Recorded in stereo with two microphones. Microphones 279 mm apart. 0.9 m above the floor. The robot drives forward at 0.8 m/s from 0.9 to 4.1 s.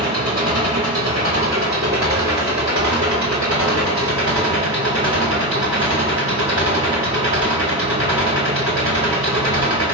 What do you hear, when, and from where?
0.0 s an engine running: 60° right (ahead or behind), 4 m; by 9.9 s 80° right, 3.5 m